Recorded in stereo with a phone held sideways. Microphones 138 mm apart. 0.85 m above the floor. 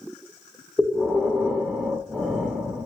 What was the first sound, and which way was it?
Breathing, 5° right (ahead or behind).